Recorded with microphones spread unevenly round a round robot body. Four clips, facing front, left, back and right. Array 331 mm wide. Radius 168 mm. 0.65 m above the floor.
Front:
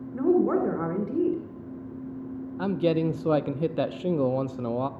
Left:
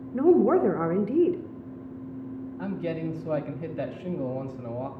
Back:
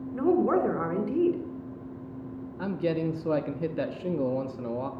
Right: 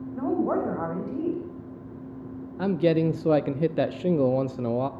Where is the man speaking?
70° right, 0.6 m.